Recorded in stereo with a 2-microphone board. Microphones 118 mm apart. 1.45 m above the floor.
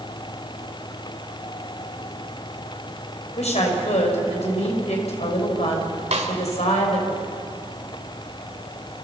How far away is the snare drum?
About 2.5 m.